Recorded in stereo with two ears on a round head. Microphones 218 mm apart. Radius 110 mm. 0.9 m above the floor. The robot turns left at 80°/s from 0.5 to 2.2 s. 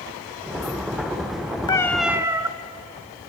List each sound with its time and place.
1.7 s a cat meowing: 25° left, 0.7 m; by 2.5 s 15° right, 0.7 m